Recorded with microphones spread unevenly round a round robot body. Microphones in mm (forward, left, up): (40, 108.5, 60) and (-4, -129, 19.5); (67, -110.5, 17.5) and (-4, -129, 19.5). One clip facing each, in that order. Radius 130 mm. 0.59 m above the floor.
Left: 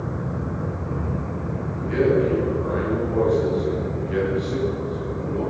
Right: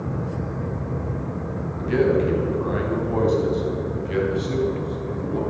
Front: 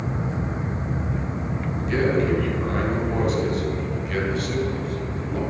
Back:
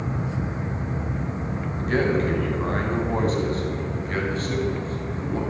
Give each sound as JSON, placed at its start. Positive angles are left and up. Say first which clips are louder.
{"t": 1.8, "sound": "a man speaking", "louder": "even, front 1 dB", "azimuth_deg": -135, "distance_m": 4.0}